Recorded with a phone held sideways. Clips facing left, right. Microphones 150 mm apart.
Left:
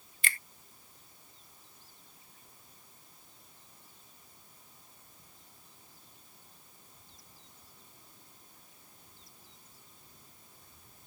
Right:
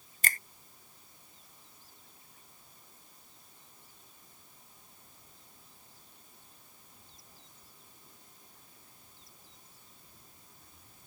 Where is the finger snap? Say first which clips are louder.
Right 2 dB; 40° right (ahead or behind).